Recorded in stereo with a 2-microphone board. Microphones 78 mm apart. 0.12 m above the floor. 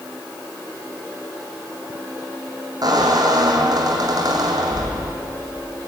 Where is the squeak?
55° right (ahead or behind), 3 m.